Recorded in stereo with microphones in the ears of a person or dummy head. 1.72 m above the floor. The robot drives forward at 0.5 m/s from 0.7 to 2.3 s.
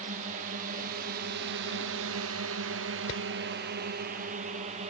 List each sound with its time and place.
0.0 s a drone: 35° right (ahead or behind)
3.1 s hammering: 35° left (ahead or behind)